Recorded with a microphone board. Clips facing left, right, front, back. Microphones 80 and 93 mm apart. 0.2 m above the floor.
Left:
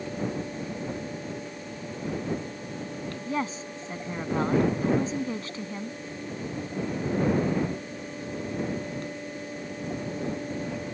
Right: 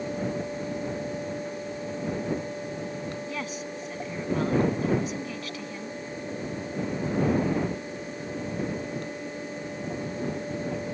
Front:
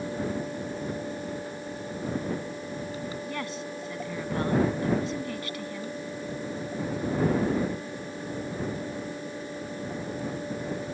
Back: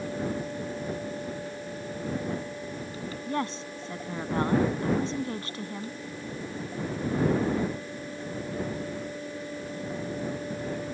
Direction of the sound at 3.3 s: 135° left.